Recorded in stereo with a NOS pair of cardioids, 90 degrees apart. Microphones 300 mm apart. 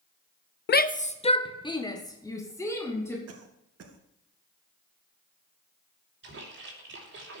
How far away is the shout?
About 0.6 m.